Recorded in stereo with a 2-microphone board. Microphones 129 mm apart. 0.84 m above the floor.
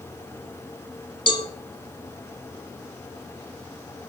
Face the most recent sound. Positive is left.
turn(degrees=40)  # may be behind; listen again after turning